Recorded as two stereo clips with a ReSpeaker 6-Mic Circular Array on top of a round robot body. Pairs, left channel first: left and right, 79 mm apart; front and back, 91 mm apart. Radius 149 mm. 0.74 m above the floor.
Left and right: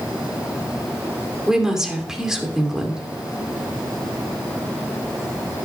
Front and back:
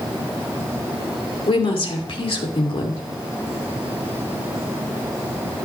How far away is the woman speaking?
About 2.5 m.